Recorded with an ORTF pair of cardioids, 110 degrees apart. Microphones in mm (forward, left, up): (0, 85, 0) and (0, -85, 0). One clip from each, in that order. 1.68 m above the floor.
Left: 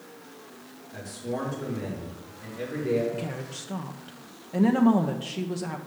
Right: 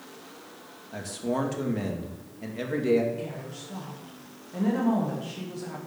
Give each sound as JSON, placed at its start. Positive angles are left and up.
{"t": 0.9, "sound": "a man speaking", "azimuth_deg": -50, "distance_m": 2.0}
{"t": 3.1, "sound": "a woman speaking", "azimuth_deg": 40, "distance_m": 0.9}